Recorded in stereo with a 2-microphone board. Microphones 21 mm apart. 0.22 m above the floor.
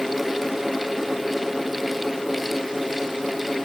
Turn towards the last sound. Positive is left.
No sound to turn to.